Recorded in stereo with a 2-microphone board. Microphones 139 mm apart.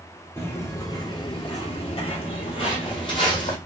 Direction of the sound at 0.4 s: 15° left (ahead or behind).